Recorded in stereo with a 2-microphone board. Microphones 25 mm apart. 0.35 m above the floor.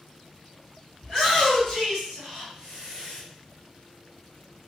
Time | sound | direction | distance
1.0 | a shout | 35° left (ahead or behind) | 1.7 m